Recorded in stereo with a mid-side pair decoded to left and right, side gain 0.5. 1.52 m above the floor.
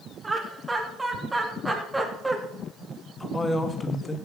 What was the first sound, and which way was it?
Laughter, 15° right.